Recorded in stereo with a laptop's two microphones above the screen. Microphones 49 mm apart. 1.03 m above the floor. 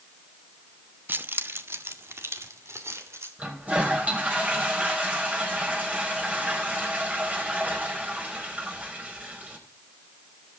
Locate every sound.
1.1 s keys jangling: 40° right (ahead or behind), 1.0 m; by 3.3 s 60° right (ahead or behind), 3 m
3.4 s a toilet flushing: 25° right (ahead or behind), 5 m